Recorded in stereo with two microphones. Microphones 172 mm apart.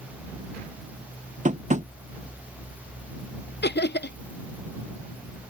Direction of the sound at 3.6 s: 80° left.